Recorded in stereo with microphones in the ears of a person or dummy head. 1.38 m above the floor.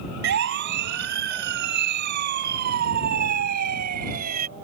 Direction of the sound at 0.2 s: 65° right (ahead or behind).